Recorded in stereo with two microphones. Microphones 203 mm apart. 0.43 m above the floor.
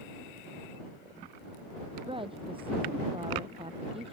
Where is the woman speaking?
25° right (ahead or behind); by 4.1 s 30° right (ahead or behind).